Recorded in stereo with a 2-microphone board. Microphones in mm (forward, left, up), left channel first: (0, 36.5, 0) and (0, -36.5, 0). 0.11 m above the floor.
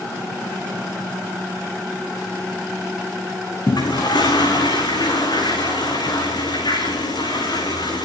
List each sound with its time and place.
3.7 s a toilet flushing: 75° left (ahead or behind), 5 m